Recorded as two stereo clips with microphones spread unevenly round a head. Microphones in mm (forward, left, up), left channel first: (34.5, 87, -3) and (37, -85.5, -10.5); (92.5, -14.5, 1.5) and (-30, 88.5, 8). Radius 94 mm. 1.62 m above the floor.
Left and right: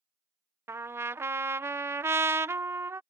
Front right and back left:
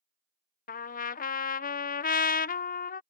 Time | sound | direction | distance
0.7 | a trumpet | 15° right | ?